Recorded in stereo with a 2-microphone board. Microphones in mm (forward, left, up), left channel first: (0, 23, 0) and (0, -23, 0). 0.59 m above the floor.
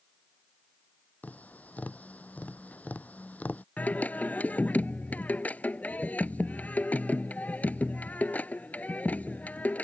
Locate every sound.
1.2 s tapping: 30° left (ahead or behind)
3.8 s singing: 35° left (ahead or behind)